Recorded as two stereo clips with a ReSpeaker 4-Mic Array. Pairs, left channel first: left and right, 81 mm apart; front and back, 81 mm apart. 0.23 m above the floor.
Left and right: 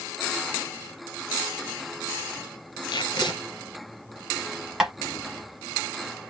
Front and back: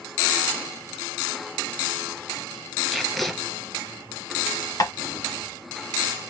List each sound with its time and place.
2.9 s tape being pulled: 85° left, 1.3 m
4.8 s tapping: 10° right, 1.1 m